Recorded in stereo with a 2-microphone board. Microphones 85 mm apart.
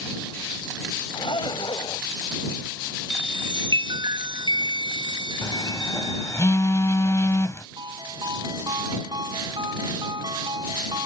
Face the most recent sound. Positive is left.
turn(degrees=-60)  # may be behind; listen again after turning